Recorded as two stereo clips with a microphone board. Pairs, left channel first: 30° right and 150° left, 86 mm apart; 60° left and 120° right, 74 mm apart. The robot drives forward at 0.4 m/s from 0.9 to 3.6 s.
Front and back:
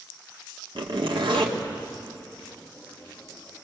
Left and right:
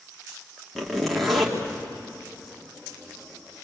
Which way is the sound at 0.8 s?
145° left.